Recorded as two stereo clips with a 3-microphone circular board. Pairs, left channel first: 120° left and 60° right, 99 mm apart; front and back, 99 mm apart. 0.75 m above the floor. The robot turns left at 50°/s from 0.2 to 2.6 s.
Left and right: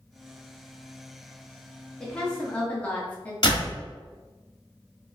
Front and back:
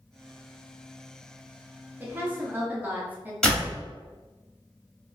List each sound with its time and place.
2.0 s a woman speaking: 170° right, 1.1 m; by 3.3 s 160° left, 1.1 m
3.4 s a door slam: 80° left, 1.4 m